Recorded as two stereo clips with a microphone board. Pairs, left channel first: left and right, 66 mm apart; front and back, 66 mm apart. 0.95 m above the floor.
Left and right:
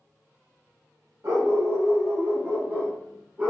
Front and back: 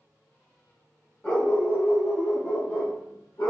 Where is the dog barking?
70° right, 1.2 m; by 3.5 s 25° right, 2 m.